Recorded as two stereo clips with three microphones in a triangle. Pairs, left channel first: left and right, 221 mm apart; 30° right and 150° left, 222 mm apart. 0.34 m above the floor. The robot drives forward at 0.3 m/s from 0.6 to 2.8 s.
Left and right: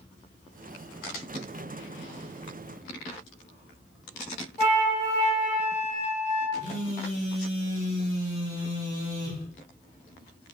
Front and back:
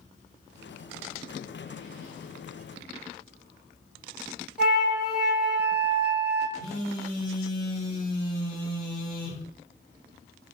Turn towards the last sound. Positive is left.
turn(degrees=-140)